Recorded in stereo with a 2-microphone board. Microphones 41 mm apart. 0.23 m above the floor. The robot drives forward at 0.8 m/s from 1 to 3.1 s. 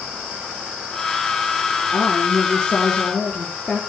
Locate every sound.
1.9 s a woman speaking: 15° left (ahead or behind), 4 m